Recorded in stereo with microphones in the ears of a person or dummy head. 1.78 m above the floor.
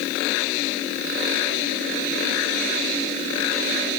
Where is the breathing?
No breathing in this recording.